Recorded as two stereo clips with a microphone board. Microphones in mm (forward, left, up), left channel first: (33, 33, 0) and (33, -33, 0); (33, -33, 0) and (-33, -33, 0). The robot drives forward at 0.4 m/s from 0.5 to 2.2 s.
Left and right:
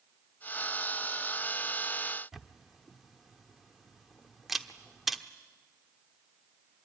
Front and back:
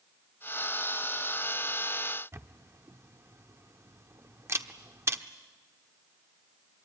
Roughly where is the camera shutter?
Behind.